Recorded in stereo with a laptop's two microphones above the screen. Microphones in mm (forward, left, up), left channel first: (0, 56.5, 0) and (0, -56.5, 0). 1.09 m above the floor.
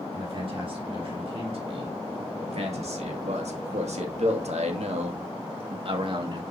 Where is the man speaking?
50° right (ahead or behind), 3.5 m; by 6.4 s 45° right (ahead or behind), 2 m.